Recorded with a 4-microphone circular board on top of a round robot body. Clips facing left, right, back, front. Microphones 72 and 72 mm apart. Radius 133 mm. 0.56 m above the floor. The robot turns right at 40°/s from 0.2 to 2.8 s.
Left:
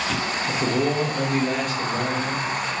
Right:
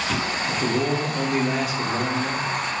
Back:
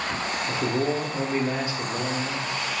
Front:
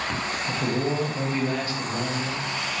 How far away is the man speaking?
About 0.6 m.